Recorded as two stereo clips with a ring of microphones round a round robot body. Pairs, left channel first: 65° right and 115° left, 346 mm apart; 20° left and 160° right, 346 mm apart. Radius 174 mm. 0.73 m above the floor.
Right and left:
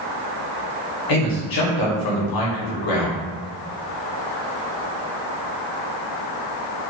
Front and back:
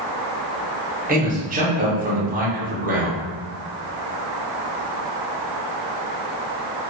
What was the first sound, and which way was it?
A man speaking, 90° right.